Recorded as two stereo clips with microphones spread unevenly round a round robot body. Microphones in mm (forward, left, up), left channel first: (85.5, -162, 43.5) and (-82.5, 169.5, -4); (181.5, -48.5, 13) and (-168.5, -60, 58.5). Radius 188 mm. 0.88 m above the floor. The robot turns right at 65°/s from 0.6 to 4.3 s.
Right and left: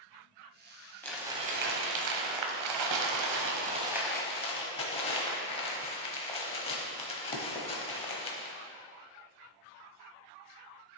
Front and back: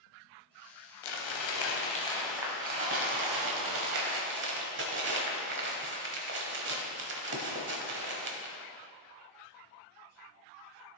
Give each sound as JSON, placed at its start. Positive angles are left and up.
{"t": 1.0, "sound": "crumpling", "azimuth_deg": 15, "distance_m": 1.1}